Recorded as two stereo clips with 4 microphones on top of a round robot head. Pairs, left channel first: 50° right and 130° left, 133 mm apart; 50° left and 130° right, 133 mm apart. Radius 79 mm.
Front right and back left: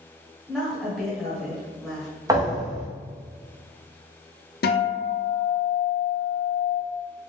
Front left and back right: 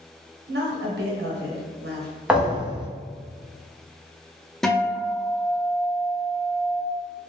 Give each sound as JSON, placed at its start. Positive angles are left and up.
{"t": 0.5, "sound": "a woman speaking", "azimuth_deg": -135, "distance_m": 1.0}
{"t": 2.3, "sound": "a thud", "azimuth_deg": 150, "distance_m": 0.8}
{"t": 4.6, "sound": "a guitar", "azimuth_deg": -40, "distance_m": 0.6}